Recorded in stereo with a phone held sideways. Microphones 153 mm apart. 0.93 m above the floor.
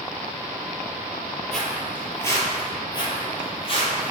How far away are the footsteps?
About 1.1 m.